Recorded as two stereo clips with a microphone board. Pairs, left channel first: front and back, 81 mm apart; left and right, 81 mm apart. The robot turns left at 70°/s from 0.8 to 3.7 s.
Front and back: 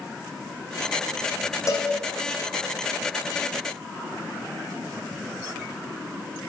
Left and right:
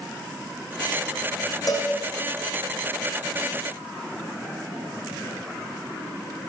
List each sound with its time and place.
1.7 s a cowbell: 50° left, 2.5 m; by 1.9 s 35° left, 2.5 m